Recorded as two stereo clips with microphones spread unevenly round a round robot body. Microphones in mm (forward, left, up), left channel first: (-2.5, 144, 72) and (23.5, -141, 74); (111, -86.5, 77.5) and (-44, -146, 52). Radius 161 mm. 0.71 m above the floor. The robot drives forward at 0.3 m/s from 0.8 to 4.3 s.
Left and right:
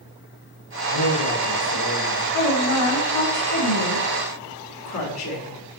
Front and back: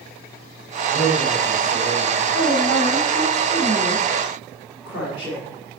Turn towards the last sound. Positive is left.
turn(degrees=120)